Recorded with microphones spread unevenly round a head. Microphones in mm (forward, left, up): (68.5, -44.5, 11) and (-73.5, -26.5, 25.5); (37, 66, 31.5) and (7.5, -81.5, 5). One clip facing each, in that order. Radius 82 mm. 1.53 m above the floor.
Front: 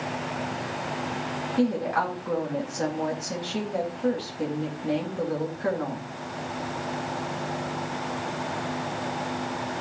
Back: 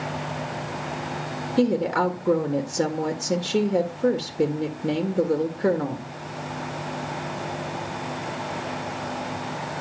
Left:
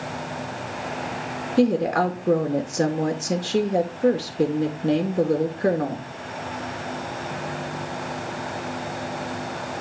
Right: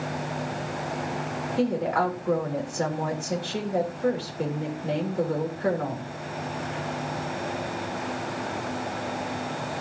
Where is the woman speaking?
125° left, 1.9 m.